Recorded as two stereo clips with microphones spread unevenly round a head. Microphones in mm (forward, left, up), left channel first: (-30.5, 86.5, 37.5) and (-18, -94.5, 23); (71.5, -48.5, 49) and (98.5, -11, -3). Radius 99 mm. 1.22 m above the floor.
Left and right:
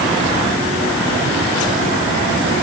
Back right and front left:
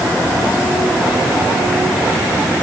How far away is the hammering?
No hammering in this recording.